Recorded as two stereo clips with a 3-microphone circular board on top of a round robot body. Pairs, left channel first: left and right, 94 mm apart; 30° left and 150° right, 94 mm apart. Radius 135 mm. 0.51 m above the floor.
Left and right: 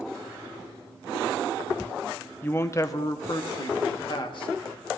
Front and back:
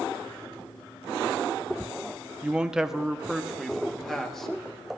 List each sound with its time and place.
2.4 s a man speaking: 140° left, 0.9 m; by 4.5 s 115° left, 2.0 m